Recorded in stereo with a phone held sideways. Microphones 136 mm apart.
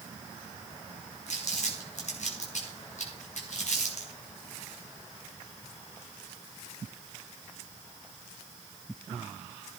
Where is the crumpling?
65° left (ahead or behind), 5 m.